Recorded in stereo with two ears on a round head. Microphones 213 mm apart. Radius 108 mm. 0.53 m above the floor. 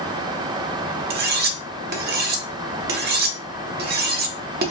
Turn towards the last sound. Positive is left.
turn(degrees=-40)  # may be behind; listen again after turning